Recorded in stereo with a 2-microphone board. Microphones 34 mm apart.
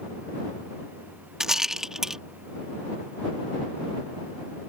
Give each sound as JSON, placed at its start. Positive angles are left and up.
{"t": 1.4, "sound": "a rattle", "side_deg": -15}